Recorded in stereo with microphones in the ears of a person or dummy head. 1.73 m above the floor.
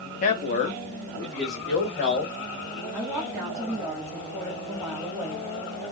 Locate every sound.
0.2 s a man speaking: 50° left (ahead or behind), 0.6 m; by 2.3 s 60° left (ahead or behind), 2.5 m
2.9 s a woman speaking: 5° right (ahead or behind), 0.9 m